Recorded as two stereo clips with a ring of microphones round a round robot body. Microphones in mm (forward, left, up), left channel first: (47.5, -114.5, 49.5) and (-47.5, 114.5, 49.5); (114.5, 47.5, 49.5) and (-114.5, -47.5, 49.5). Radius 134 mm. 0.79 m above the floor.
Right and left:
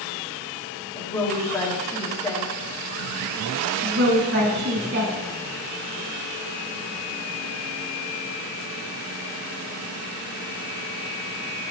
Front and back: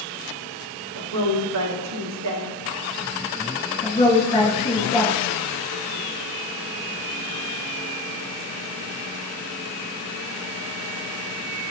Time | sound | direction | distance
0.9 | a woman speaking | 145° right | 1.3 m
3.8 | a woman speaking | 85° left | 2.0 m